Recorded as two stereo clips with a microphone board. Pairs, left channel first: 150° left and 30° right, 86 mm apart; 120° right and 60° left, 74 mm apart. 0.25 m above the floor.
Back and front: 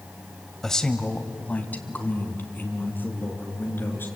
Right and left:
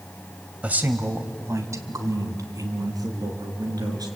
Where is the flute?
No flute in this recording.